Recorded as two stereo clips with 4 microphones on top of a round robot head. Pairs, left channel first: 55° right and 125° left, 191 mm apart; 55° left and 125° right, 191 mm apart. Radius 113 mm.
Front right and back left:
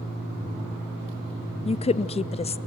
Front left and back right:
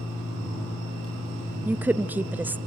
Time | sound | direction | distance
1.6 | a woman speaking | 55° right | 0.5 m